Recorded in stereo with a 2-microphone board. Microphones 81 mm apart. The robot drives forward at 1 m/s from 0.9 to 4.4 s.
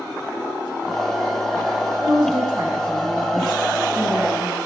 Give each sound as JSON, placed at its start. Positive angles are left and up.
{"t": 2.0, "sound": "a woman speaking", "side_deg": -55, "distance_m": 2.5}